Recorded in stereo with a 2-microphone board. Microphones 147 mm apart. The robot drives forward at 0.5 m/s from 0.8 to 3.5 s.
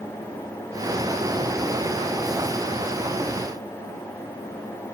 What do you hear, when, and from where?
Only background noise.